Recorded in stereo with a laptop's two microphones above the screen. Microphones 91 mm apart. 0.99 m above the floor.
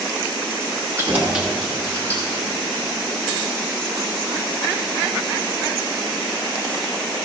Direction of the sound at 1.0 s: 30° right (ahead or behind).